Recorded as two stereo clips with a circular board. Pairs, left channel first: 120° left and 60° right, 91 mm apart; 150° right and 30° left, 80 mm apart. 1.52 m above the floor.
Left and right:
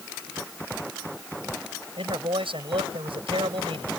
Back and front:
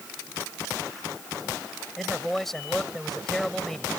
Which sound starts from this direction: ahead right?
A man speaking, at 2.0 s.